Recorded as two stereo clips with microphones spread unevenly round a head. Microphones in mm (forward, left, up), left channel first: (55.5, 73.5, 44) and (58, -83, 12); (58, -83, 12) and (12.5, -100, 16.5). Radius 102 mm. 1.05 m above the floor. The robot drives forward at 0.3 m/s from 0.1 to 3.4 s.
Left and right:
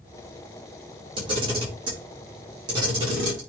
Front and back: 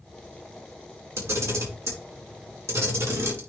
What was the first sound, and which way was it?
A camera shutter, 150° right.